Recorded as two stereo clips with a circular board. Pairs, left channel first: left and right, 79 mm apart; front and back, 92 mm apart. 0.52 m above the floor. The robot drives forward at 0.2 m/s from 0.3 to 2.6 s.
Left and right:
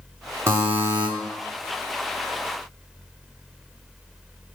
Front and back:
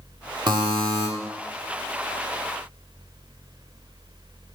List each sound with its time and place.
0.5 s a buzzer: 145° right, 0.7 m; by 1.1 s 150° right, 0.8 m